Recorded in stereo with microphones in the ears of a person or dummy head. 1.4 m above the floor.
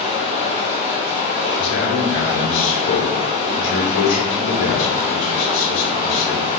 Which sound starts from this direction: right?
Running water, at 0.0 s.